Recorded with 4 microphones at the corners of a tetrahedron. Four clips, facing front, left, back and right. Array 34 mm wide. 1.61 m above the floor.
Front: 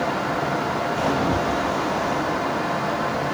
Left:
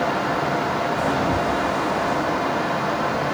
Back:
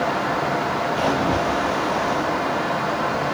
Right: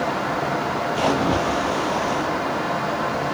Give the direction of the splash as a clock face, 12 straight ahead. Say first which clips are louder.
Right 1 dB, back 1 dB; 4 o'clock.